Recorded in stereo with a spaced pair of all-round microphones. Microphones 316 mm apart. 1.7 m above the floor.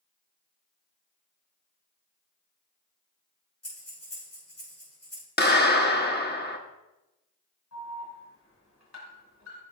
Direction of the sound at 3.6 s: 50° left (ahead or behind).